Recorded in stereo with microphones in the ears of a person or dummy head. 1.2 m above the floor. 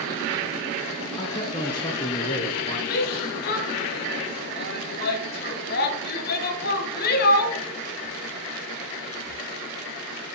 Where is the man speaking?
25° left (ahead or behind), 0.7 m.